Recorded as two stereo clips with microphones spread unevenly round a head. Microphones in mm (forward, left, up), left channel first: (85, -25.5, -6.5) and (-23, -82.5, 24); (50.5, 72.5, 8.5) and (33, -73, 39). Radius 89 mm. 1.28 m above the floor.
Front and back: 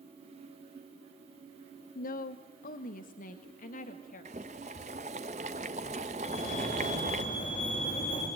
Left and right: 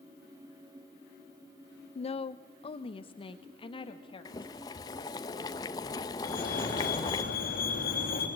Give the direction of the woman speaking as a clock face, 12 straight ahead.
11 o'clock.